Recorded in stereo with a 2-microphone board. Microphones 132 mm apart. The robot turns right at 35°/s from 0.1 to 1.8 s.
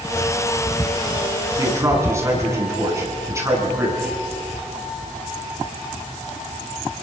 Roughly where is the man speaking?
Right.